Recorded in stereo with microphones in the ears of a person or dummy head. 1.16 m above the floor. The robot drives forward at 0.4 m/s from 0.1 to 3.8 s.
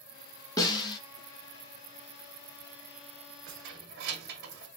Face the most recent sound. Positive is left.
turn(degrees=-55)  # may be behind; listen again after turning